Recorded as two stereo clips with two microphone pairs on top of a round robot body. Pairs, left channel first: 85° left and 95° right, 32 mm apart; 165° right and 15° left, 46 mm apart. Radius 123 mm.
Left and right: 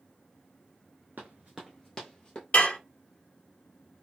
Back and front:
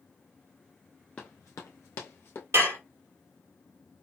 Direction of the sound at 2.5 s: 40° left.